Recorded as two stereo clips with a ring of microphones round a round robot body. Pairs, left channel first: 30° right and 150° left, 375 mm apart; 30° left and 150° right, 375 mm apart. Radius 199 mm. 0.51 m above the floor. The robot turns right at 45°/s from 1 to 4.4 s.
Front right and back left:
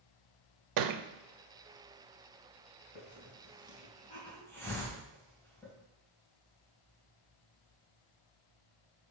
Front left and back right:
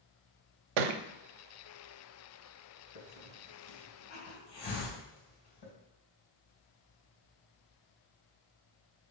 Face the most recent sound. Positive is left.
turn(degrees=55)